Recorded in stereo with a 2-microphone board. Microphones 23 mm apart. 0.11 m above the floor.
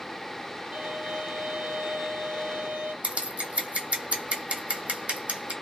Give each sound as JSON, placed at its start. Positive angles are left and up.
{"t": 0.7, "sound": "a violin", "side_deg": -60, "distance_m": 1.6}
{"t": 3.0, "sound": "scissors", "side_deg": -70, "distance_m": 0.7}